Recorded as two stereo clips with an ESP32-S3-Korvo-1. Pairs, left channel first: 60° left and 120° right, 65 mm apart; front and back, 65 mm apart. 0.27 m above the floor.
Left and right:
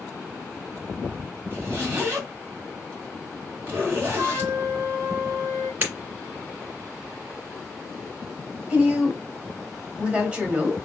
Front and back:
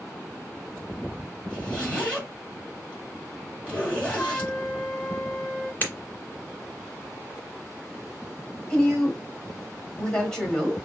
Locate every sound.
1.5 s a zipper: 65° right, 2 m
4.1 s a flute: 80° right, 1.7 m
5.8 s breaking glass: 60° right, 1.9 m
8.7 s a woman speaking: 65° right, 1.2 m